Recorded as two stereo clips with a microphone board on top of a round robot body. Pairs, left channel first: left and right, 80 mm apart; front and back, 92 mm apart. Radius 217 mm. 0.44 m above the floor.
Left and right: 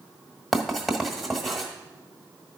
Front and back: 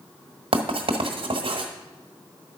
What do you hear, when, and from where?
0.5 s writing: straight behind, 1.5 m